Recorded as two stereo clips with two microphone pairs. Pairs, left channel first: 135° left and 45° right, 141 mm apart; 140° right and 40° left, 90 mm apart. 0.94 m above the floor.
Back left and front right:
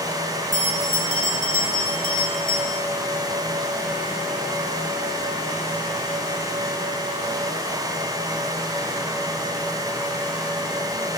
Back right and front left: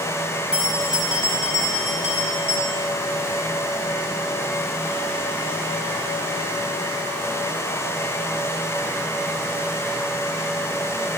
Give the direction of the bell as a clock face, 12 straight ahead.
8 o'clock.